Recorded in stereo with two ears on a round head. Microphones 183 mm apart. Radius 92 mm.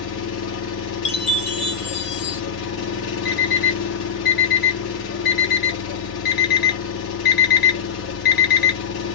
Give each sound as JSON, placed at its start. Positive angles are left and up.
{"t": 0.0, "sound": "an engine running", "side_deg": 75, "distance_m": 1.9}
{"t": 1.1, "sound": "a chime", "side_deg": 60, "distance_m": 1.8}
{"t": 3.2, "sound": "an alarm clock", "side_deg": 55, "distance_m": 2.5}